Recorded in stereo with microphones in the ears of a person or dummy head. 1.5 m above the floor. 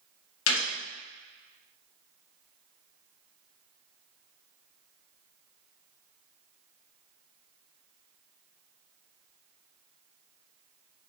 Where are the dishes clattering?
No dishes clattering in this recording.